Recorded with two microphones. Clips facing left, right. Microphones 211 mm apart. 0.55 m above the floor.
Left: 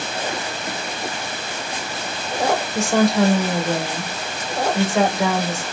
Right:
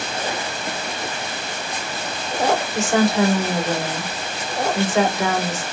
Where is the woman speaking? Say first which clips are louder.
Left 2 dB; centre (ahead or behind), 1.8 m.